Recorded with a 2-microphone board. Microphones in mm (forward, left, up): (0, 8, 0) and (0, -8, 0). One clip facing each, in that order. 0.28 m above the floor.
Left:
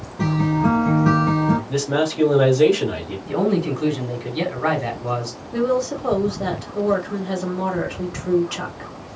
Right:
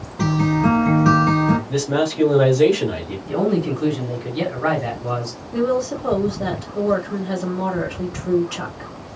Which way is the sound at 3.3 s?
25° left (ahead or behind).